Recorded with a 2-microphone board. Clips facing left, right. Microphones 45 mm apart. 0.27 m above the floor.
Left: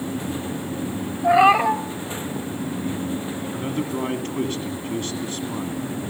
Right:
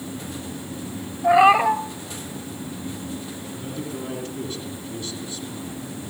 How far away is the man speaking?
About 2.5 m.